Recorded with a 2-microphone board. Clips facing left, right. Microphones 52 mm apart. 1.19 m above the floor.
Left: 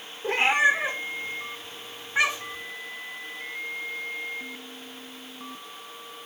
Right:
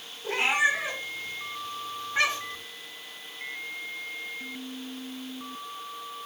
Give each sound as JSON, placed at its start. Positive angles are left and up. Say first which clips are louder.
{"t": 0.2, "sound": "a cat meowing", "louder": "left 3 dB", "side_deg": 45, "distance_m": 2.0}